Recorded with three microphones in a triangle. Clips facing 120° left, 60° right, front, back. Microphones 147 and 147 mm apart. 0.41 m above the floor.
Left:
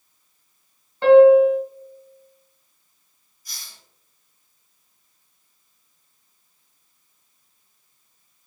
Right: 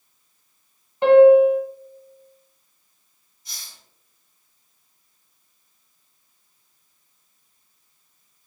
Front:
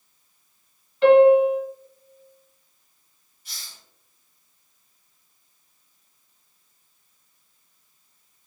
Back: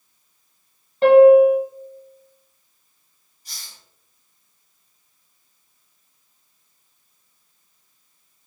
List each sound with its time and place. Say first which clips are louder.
1.0 s a piano: even, back 4 dB; 130° right, 1.0 m
3.5 s a hiss: even, back 1 dB; 125° right, 1.7 m